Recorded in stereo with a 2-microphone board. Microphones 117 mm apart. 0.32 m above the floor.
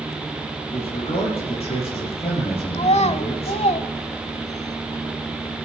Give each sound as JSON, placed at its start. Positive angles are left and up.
{"t": 0.7, "sound": "a man speaking", "side_deg": 55, "distance_m": 7.0}
{"t": 2.7, "sound": "a child speaking", "side_deg": 70, "distance_m": 1.1}